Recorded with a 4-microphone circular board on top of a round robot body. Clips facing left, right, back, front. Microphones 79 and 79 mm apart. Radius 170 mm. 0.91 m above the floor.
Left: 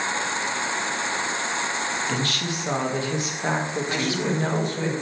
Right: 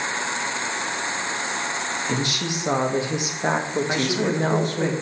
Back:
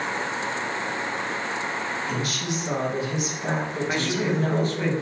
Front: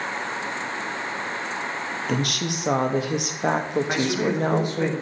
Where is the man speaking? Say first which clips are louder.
Right 2 dB, back 1 dB; 75° right, 2.5 m.